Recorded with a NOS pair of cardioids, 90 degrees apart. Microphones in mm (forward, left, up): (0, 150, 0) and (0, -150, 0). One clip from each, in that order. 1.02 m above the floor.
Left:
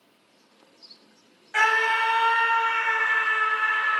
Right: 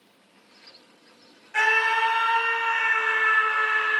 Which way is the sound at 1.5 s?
40° left.